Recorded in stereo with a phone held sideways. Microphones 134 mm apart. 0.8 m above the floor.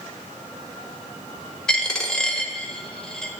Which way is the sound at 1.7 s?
5° left (ahead or behind).